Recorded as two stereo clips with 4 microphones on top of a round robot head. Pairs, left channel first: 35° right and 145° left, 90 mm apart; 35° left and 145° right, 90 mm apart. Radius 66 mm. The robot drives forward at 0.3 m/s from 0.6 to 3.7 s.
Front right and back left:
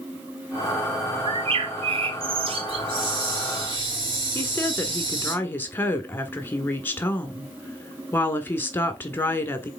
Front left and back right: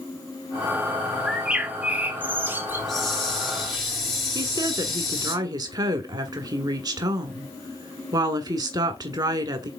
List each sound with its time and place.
1.2 s a bird: 130° left, 0.9 m; by 2.9 s 150° left, 1.3 m
2.7 s a hiss: 115° left, 3.5 m; by 5.3 s 120° left, 3.5 m
4.3 s a woman speaking: 100° right, 1.6 m